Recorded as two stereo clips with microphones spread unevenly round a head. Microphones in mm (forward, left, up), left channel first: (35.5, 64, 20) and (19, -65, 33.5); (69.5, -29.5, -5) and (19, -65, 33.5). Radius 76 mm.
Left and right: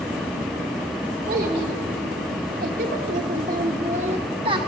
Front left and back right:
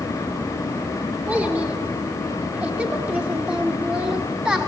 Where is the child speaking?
95° right, 3 m; by 4.7 s 135° right, 1.2 m.